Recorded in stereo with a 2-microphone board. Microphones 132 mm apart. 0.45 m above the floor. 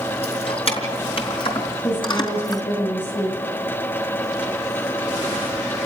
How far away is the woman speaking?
About 5 m.